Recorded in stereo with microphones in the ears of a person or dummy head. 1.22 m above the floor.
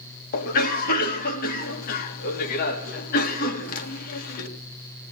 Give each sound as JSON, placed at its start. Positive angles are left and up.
{"t": 0.3, "sound": "a cough", "side_deg": 50, "distance_m": 2.0}